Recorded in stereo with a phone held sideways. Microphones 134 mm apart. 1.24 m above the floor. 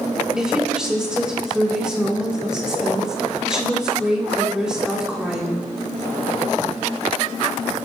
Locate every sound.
0.4 s a woman speaking: 5° right (ahead or behind), 4 m